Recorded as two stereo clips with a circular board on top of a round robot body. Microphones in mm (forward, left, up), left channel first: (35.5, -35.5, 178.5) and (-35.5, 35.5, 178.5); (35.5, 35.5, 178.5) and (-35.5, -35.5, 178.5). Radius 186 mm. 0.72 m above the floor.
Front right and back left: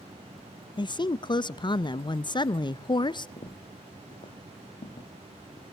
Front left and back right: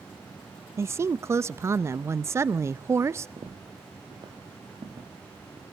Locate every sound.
0.8 s a woman speaking: 75° right, 0.7 m
3.4 s footsteps: 80° right, 1.6 m